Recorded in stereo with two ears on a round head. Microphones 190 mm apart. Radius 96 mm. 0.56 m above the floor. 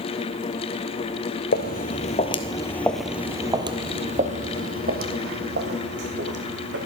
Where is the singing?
No singing in this recording.